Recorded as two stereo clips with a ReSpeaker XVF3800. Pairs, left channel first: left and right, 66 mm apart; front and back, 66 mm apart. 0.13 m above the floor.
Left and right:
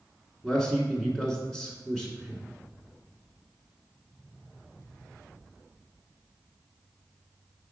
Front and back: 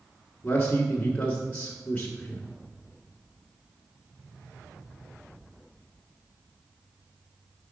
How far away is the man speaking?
About 1.2 m.